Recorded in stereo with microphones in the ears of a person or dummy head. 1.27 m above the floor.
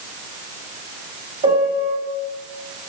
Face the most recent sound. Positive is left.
turn(degrees=-20)  # may be behind; listen again after turning